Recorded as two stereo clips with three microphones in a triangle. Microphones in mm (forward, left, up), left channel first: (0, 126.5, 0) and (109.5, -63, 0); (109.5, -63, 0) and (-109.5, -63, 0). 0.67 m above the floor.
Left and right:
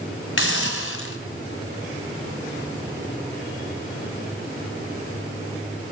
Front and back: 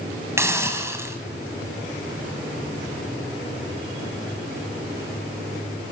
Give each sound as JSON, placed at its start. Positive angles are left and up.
{"t": 0.4, "sound": "a hiss", "azimuth_deg": 100, "distance_m": 2.5}